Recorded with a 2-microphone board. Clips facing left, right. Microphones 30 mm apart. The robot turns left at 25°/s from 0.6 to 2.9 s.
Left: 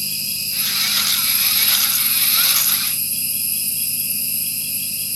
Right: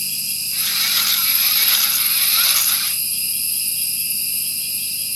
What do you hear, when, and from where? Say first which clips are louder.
0.0 s an insect: left 1 dB; 10° left, 1.3 m; by 5.2 s 50° right, 1.3 m